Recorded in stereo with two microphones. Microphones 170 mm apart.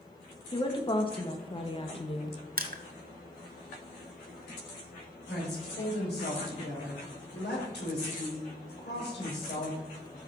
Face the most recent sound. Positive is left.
turn(degrees=75)  # may be behind; listen again after turning